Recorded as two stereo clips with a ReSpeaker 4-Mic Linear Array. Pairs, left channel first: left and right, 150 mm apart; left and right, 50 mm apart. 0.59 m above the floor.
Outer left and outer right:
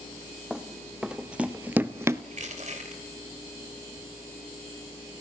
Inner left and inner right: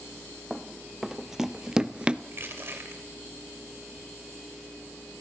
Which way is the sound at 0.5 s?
5° right (ahead or behind).